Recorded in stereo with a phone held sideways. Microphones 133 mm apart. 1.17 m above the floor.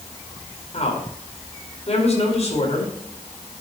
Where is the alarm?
No alarm in this recording.